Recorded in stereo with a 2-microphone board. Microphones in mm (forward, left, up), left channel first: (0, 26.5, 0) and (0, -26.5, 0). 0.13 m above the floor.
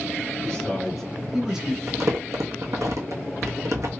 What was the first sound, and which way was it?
A man speaking, 15° left (ahead or behind).